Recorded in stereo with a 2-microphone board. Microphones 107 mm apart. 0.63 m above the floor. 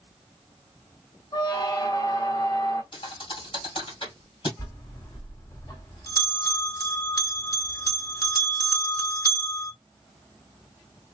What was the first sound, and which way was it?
A squeak, 40° left (ahead or behind).